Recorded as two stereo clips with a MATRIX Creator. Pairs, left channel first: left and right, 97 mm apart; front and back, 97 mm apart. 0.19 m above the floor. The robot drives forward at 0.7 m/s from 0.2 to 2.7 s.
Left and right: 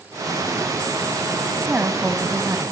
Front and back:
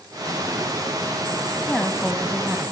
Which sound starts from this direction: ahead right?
A woman speaking, at 1.6 s.